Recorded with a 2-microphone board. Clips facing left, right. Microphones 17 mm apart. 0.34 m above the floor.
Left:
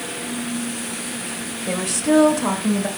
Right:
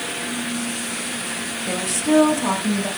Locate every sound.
1.7 s a woman speaking: 20° left (ahead or behind), 1.0 m